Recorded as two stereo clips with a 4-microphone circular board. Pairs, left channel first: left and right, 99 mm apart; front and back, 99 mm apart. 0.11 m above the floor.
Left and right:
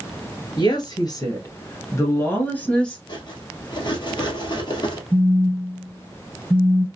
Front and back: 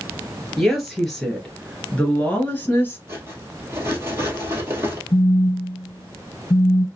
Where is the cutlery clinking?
120° left, 1.7 m.